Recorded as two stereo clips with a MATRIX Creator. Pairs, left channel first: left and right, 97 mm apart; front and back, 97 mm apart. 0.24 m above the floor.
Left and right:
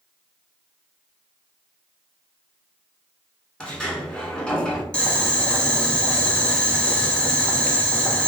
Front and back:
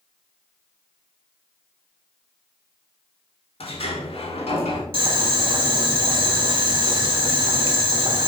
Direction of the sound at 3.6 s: 10° left.